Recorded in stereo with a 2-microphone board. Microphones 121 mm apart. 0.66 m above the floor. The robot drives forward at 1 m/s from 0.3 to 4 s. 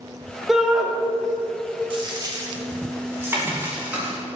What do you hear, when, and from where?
0.5 s a shout: 5° right (ahead or behind), 1.5 m
1.9 s a dropped coin: 45° right (ahead or behind), 1.2 m; by 4.2 s 15° right (ahead or behind), 3 m